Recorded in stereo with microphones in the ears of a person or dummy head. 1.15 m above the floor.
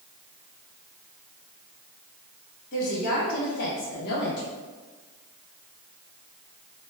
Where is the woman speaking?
50° left (ahead or behind), 1.3 m; by 4.5 s 55° left (ahead or behind), 0.5 m.